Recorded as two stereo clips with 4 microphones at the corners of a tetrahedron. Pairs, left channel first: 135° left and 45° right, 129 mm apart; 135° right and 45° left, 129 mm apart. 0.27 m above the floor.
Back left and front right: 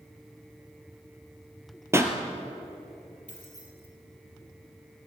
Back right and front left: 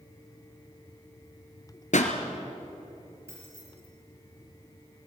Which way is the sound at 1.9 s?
115° right.